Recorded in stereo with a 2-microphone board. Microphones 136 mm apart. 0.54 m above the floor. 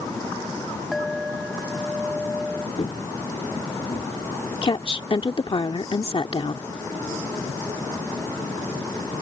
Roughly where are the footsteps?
Left.